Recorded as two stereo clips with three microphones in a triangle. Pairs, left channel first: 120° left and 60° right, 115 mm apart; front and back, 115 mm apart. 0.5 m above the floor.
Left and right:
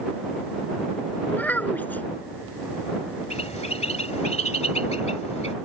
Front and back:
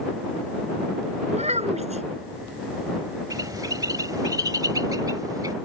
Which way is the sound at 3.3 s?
125° left.